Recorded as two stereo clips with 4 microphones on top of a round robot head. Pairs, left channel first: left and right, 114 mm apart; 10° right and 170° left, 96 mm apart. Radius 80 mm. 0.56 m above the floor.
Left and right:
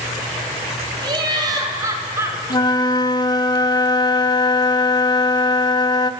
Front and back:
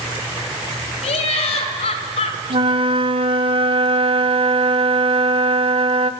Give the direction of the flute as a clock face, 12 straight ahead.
7 o'clock.